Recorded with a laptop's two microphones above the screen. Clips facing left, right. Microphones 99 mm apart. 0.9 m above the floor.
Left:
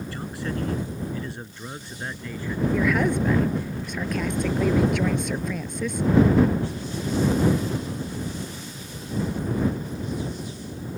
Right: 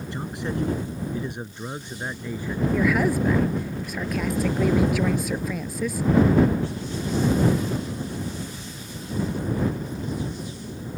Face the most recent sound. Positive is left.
turn(degrees=-5)  # may be behind; listen again after turning